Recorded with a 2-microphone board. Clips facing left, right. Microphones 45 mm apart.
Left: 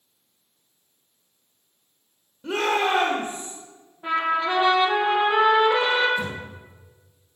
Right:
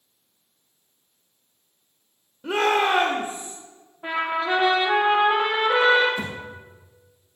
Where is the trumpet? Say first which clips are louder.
Left 2 dB; 15° right (ahead or behind), 2.5 m.